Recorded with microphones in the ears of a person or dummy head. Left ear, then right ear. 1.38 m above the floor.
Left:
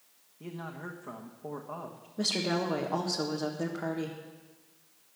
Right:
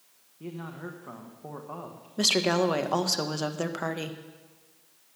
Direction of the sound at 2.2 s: 75° right (ahead or behind).